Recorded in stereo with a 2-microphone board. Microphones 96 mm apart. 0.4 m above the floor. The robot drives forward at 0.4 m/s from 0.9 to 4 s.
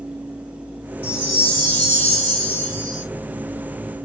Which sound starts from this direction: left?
A chime, at 1.0 s.